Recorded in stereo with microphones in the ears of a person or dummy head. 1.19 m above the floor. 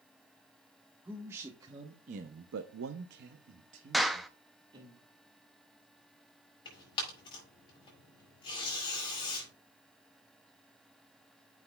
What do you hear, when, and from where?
1.1 s a man speaking: 15° right (ahead or behind), 1.3 m; by 4.9 s 25° right (ahead or behind), 1.8 m
3.9 s a clap: 5° right (ahead or behind), 0.5 m
6.7 s tearing paper: 25° left (ahead or behind), 4.5 m